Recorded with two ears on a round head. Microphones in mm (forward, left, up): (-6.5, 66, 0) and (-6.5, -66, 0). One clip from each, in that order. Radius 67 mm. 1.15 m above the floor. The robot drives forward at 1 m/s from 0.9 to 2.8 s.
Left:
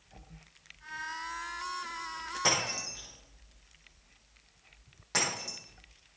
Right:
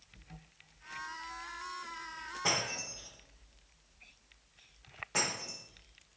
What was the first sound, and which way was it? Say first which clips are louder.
Breaking glass: left 3 dB; 60° left (ahead or behind).